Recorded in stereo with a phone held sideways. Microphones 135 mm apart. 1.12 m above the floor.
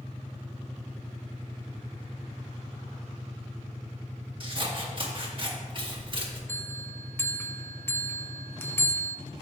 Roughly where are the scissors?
Right.